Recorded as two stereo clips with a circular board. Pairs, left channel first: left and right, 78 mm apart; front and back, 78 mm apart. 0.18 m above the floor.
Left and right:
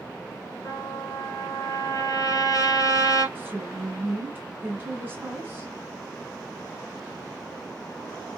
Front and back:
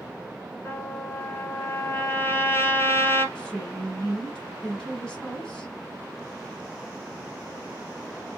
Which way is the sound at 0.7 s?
55° left.